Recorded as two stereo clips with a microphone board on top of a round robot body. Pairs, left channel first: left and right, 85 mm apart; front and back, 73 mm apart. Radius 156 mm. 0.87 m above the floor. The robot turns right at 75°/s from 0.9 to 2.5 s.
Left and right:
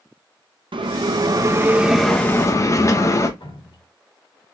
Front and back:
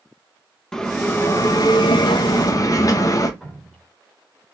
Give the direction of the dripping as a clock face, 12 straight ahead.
9 o'clock.